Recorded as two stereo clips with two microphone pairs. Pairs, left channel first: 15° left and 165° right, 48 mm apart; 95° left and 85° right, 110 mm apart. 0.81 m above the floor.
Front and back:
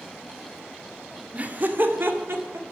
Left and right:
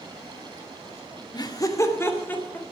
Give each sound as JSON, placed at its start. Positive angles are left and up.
{"t": 1.3, "sound": "laughter", "azimuth_deg": 140, "distance_m": 2.0}